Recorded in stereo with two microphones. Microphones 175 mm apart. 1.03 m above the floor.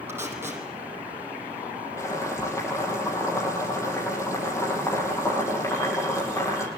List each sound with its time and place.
0.1 s tape being pulled: 10° right (ahead or behind), 8.5 m
2.0 s boiling: 15° left (ahead or behind), 9 m